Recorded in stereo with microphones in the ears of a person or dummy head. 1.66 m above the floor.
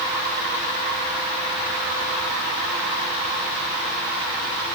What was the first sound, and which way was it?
Only background noise.